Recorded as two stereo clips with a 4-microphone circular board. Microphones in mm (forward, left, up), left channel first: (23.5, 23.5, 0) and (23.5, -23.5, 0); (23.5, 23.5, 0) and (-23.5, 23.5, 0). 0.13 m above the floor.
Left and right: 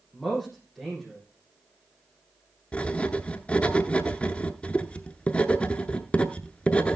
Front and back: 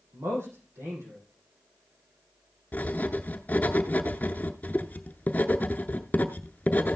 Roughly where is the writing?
Ahead left.